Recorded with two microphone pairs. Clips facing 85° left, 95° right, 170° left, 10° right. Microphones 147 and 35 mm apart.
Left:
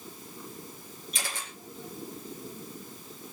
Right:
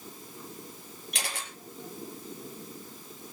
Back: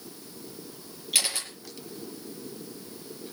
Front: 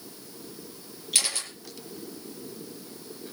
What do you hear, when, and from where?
1.1 s a camera shutter: 110° right, 5.5 m